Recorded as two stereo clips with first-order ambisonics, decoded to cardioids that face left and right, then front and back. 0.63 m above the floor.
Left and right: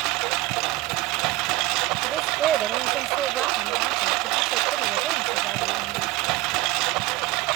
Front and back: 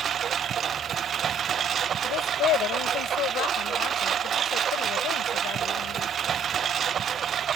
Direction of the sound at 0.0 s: 115° right.